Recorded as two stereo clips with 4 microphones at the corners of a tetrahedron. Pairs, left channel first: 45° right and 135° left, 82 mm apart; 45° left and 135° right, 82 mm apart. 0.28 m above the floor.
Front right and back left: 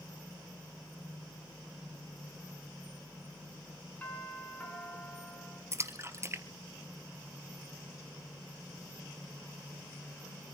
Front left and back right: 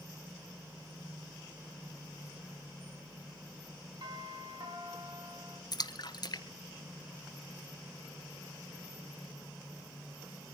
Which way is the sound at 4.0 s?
115° right.